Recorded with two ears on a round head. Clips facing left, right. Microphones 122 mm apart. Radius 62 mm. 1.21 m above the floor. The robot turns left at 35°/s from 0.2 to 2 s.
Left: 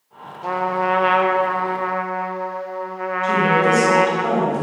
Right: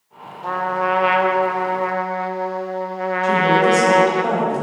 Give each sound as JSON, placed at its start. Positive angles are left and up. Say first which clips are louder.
{"t": 0.4, "sound": "a trumpet", "louder": "even", "azimuth_deg": 15, "distance_m": 0.8}
{"t": 3.2, "sound": "a woman speaking", "louder": "right 2 dB", "side_deg": -15, "distance_m": 5.5}